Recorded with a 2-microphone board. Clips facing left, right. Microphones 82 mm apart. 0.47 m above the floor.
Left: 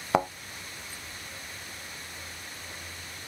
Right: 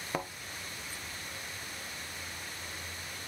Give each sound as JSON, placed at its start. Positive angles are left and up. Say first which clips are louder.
{"t": 0.1, "sound": "a thud", "louder": "left 11 dB", "side_deg": 80, "distance_m": 0.6}